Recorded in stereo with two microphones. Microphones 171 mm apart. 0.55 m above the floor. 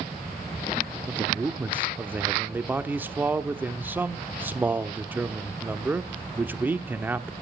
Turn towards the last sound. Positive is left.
turn(degrees=-10)  # may be behind; listen again after turning